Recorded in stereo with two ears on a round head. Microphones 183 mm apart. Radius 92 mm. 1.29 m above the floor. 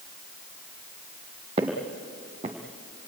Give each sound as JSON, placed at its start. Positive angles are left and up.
{"t": 1.6, "sound": "footsteps", "side_deg": -25, "distance_m": 3.0}